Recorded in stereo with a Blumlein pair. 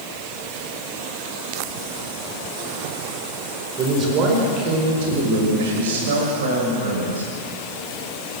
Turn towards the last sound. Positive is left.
turn(degrees=-70)